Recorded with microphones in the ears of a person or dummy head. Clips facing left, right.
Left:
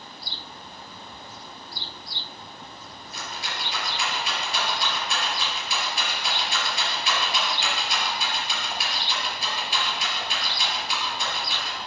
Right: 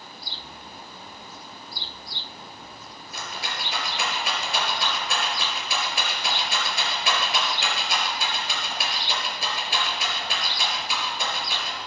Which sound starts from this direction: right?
A rattle, at 3.1 s.